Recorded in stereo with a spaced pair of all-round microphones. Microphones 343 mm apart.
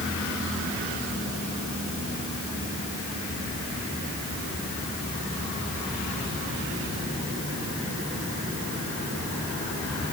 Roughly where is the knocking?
I don't hear knocking.